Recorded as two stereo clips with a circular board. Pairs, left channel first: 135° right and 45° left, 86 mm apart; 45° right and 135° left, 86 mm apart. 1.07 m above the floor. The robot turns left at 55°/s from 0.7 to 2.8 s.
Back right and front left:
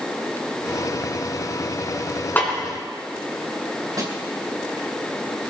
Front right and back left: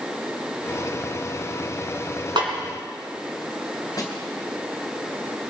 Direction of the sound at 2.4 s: 155° left.